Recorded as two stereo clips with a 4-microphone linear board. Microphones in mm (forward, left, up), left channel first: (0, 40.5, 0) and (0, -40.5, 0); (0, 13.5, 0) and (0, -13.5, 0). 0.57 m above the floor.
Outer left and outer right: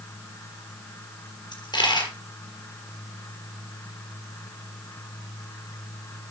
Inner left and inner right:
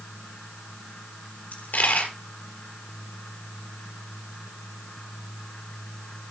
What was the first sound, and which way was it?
A dropped coin, 60° left (ahead or behind).